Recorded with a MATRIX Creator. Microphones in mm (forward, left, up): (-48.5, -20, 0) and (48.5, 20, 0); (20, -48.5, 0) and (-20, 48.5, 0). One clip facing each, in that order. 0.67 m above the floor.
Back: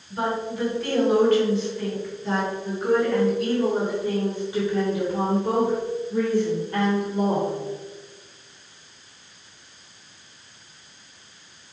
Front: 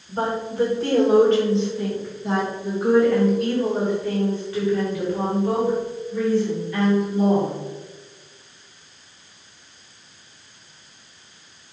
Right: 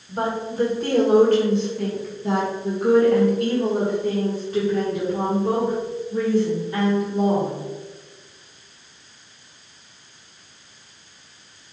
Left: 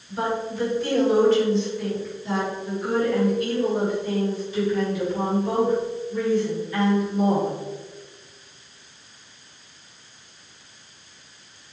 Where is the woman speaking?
25° right, 3 m; by 7.5 s 125° right, 3 m.